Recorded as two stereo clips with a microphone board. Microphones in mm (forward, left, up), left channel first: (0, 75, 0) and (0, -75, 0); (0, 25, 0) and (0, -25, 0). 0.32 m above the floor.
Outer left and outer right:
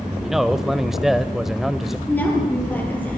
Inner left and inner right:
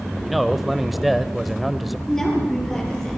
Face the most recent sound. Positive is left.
turn(degrees=10)  # may be behind; listen again after turning